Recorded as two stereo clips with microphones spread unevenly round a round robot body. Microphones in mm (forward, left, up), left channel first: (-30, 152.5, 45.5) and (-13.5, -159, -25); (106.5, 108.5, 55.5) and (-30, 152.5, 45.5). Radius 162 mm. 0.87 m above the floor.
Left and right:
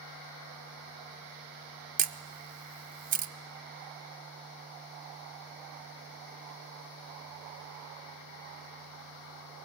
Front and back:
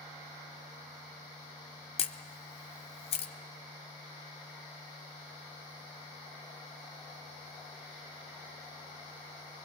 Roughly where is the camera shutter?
Ahead.